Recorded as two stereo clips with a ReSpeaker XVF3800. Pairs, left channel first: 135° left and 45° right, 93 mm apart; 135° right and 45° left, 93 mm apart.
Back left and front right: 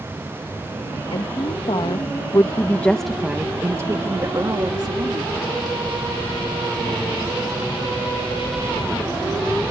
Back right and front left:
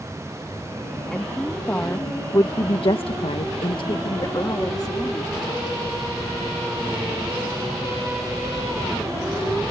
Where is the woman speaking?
140° left; by 5.3 s 85° right.